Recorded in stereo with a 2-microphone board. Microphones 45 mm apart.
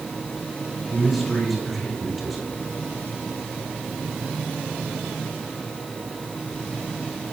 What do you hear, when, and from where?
0.9 s a man speaking: centre (ahead or behind), 9.5 m